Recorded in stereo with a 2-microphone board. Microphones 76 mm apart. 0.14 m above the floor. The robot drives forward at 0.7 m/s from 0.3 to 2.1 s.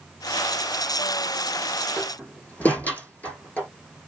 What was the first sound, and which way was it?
A door slam, 20° left (ahead or behind).